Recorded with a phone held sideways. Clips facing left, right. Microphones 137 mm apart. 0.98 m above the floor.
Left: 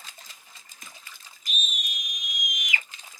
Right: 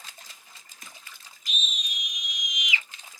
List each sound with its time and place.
1.5 s a scream: 55° left (ahead or behind), 1.8 m